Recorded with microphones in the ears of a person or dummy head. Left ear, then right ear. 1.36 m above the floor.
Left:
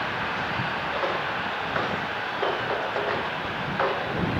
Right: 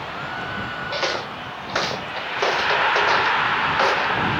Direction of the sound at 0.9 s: 70° right (ahead or behind).